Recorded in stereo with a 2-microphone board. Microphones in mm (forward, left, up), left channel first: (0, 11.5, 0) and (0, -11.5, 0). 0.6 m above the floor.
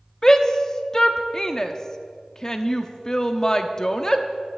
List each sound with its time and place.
0.2 s a shout: 25° left (ahead or behind), 0.9 m